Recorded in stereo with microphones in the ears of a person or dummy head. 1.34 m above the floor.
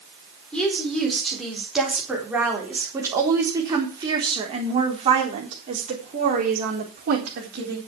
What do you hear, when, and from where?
0.5 s a woman speaking: 5° left (ahead or behind), 4.5 m; by 7.8 s 50° right (ahead or behind), 4 m